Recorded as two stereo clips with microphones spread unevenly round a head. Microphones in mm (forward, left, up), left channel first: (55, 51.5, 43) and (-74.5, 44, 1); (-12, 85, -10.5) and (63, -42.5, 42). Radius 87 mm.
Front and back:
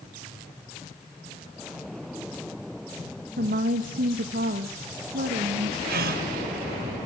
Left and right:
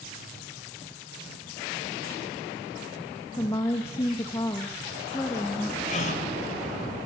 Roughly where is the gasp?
Behind.